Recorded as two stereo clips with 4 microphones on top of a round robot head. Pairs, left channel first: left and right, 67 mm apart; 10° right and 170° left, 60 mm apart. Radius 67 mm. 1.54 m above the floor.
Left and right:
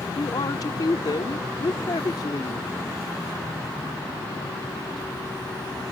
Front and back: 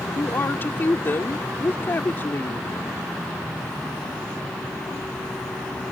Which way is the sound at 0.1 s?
45° left.